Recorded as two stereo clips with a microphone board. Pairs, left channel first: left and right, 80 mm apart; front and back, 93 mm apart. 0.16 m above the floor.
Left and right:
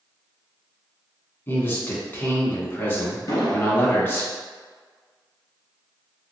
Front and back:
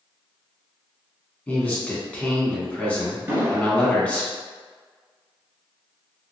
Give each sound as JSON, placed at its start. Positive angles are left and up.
{"t": 1.5, "sound": "a man speaking", "azimuth_deg": 60, "distance_m": 1.2}
{"t": 3.3, "sound": "an explosion", "azimuth_deg": 120, "distance_m": 1.5}